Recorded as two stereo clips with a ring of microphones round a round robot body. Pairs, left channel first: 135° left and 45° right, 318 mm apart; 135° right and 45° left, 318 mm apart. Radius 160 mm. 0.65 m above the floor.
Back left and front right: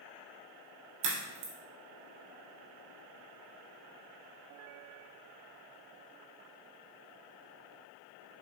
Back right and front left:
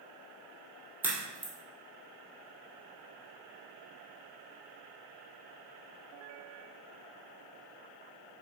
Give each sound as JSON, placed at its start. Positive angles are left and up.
{"t": 1.0, "sound": "a crack", "azimuth_deg": -40, "distance_m": 2.5}